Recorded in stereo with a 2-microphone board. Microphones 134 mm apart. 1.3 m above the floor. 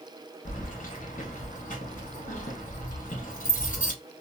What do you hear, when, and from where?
0.5 s keys jangling: 85° left, 1.0 m